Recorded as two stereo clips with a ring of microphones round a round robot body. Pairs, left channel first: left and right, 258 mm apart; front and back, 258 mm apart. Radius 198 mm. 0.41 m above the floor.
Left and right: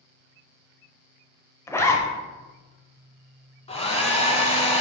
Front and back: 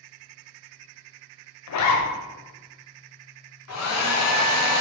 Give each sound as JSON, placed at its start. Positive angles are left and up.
{"t": 1.7, "sound": "a zipper", "azimuth_deg": 10, "distance_m": 0.9}
{"t": 3.7, "sound": "a hair dryer", "azimuth_deg": 20, "distance_m": 1.3}